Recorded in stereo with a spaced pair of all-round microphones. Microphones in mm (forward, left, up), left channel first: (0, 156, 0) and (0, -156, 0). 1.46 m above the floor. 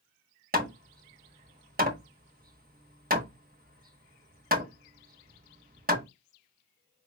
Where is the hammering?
30° right (ahead or behind), 1.1 m.